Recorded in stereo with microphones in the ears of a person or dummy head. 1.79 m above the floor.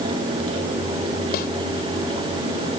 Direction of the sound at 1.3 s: 65° left (ahead or behind).